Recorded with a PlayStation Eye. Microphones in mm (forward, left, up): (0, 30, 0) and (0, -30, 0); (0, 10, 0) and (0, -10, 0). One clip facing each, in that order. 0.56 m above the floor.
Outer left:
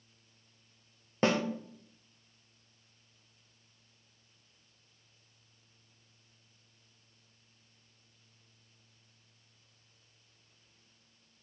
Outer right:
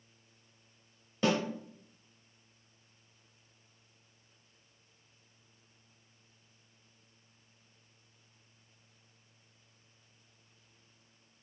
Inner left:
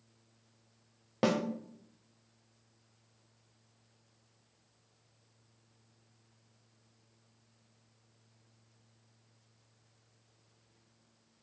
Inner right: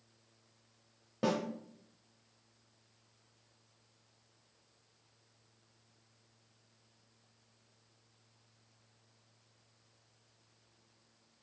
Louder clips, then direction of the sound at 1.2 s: Outer left 1 dB, inner left 3 dB; 40° left (ahead or behind).